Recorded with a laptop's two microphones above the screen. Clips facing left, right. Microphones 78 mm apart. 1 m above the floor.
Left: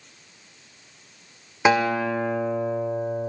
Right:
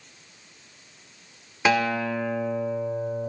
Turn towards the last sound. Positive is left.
turn(degrees=20)  # may be behind; listen again after turning